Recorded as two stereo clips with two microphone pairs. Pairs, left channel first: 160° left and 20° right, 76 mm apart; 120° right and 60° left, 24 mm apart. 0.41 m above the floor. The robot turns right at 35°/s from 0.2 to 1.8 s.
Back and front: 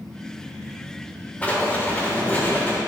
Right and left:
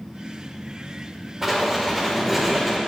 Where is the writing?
115° left, 1.6 m; by 2.8 s 130° left, 1.6 m.